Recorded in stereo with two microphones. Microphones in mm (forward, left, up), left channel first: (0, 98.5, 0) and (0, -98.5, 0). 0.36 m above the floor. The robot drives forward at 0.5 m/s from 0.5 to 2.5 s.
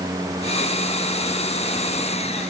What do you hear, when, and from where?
Only background noise.